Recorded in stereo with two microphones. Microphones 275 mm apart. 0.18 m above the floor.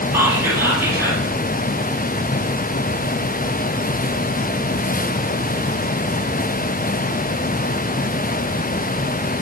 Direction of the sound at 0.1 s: 10° right (ahead or behind).